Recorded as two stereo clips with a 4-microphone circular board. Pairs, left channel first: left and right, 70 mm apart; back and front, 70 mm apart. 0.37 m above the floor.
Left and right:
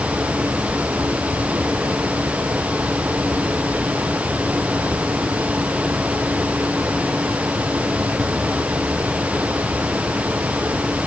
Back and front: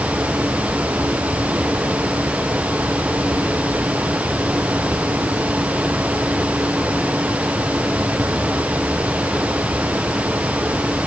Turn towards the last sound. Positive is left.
No sound to turn to.